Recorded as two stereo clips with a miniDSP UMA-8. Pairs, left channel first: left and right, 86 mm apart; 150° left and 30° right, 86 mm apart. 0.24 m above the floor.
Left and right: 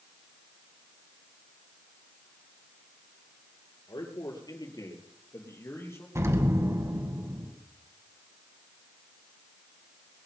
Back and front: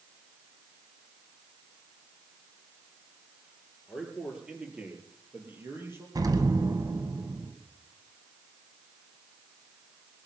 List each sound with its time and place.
3.9 s a man speaking: 60° left, 4 m; by 6.0 s 30° left, 5.5 m
6.2 s an explosion: 50° right, 1.6 m